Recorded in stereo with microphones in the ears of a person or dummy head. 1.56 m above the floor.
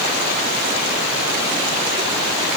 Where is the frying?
I don't hear frying.